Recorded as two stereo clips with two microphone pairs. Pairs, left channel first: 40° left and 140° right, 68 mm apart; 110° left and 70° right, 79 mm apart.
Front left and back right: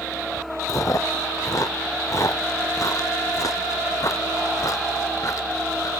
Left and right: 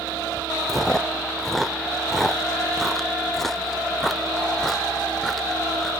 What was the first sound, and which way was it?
Chewing, 25° left.